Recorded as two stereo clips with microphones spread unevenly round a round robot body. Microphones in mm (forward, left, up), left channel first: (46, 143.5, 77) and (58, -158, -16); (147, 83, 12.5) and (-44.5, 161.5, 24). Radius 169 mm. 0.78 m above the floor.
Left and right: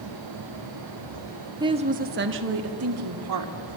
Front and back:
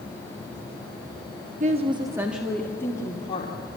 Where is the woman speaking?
150° right, 1.4 m; by 3.6 s 90° right, 2.5 m.